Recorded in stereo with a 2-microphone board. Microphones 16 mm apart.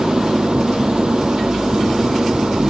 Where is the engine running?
80° right.